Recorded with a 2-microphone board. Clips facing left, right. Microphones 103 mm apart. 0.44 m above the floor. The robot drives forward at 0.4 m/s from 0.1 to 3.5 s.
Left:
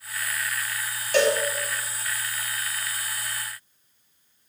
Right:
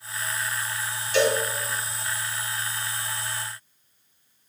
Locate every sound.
1.1 s a cowbell: 55° left (ahead or behind), 2 m